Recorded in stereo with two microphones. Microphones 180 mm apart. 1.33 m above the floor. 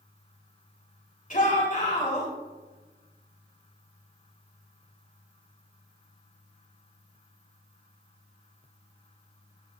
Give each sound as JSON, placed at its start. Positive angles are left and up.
{"t": 1.3, "sound": "a shout", "side_deg": 50, "distance_m": 4.0}